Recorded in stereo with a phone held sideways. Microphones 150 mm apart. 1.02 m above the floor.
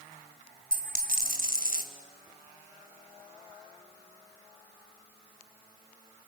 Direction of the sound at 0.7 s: 70° right (ahead or behind).